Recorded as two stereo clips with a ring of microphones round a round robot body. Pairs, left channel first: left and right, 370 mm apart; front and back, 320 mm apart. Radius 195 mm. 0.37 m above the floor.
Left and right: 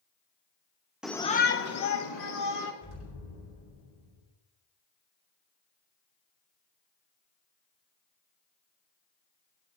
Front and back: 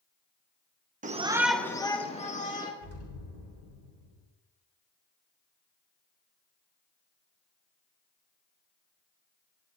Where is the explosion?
40° left, 4.5 m.